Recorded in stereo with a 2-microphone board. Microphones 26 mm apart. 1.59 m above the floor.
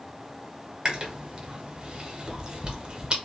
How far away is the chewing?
About 0.7 m.